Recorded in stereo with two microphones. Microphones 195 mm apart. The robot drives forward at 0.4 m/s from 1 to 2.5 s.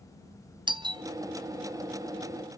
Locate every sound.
0.7 s a doorbell: 20° right (ahead or behind), 0.6 m